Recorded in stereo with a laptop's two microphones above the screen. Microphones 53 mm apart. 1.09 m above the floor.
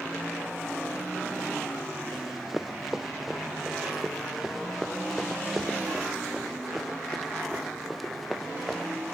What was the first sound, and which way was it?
Running footsteps, 5° right (ahead or behind).